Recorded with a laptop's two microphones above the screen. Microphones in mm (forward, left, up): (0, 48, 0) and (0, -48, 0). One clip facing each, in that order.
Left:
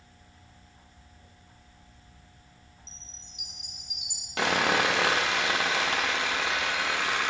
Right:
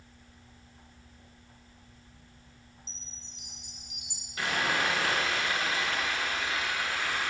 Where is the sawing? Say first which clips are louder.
Left 5 dB; 75° left (ahead or behind), 0.9 m.